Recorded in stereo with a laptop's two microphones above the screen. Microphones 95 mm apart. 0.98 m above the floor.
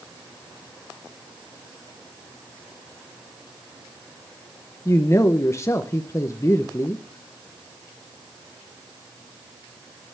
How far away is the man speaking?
About 0.8 m.